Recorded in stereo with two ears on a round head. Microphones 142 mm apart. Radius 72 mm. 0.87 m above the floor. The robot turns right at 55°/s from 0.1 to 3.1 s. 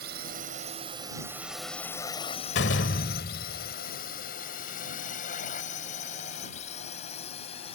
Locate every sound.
0.0 s a drone: 65° right (ahead or behind); by 7.8 s 35° left (ahead or behind)
2.5 s a door slam: 75° left; by 3.8 s 105° left